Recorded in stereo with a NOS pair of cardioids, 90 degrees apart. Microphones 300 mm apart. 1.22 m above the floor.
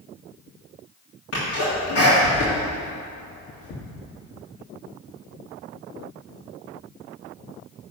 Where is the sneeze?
55° left, 3 m.